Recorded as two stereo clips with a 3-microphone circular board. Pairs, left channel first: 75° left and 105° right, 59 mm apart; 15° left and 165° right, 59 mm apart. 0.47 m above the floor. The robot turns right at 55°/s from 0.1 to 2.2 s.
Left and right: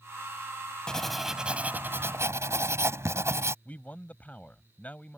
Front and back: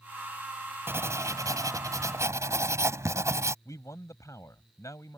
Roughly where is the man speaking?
Ahead.